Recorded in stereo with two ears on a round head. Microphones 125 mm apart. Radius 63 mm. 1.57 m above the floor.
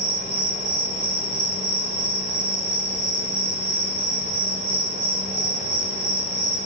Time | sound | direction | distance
0.0 | an insect | 50° right (ahead or behind) | 8 m